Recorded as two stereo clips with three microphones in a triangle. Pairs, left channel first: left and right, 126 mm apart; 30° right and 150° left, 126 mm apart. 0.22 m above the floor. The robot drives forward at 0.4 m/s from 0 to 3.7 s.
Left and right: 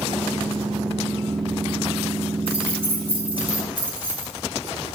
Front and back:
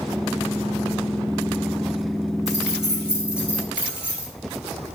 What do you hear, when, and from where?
2.5 s keys jangling: 125° right, 3 m; by 4.3 s 130° right, 3 m